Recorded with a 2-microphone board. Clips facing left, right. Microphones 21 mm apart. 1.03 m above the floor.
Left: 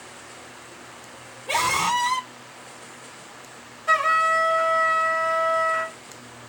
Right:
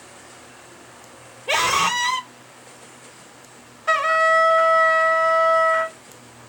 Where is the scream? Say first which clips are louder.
Right 3 dB; 60° right (ahead or behind), 3 m.